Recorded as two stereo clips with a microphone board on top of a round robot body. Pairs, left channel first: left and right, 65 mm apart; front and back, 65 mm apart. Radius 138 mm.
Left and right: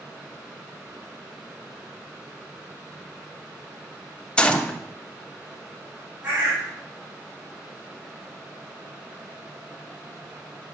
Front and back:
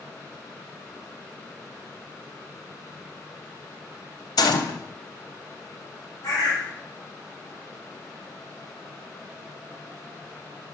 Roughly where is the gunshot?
Ahead.